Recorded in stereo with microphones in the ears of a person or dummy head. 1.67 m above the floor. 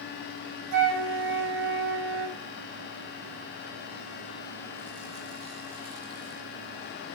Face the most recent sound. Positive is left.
turn(degrees=-85)